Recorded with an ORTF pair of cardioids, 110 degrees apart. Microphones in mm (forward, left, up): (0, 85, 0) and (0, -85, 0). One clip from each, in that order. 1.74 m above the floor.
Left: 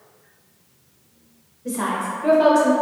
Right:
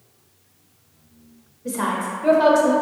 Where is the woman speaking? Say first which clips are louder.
Even; 10° right, 0.6 m.